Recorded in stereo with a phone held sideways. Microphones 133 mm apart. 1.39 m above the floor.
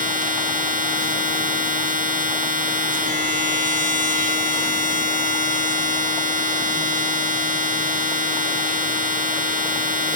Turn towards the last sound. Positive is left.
turn(degrees=-80)